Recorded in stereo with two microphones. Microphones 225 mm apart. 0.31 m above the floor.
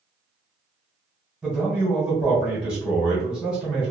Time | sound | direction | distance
1.4 | a man speaking | 5° right (ahead or behind) | 1.4 m